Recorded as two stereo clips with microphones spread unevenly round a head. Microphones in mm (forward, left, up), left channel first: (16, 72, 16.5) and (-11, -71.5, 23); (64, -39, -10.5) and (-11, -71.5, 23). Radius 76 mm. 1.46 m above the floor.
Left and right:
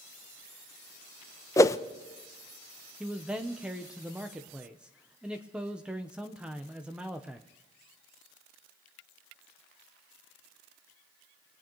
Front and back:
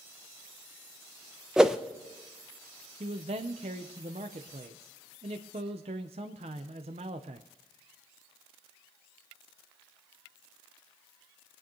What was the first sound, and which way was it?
A whoosh, 145° left.